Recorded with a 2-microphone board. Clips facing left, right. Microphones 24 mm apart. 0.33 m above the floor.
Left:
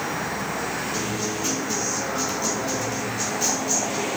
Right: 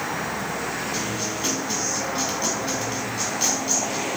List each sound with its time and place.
0.9 s a guitar: 55° right (ahead or behind), 3.5 m